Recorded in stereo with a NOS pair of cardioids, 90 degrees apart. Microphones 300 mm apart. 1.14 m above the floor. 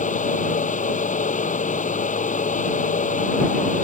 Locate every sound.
0.0 s a fan: 25° left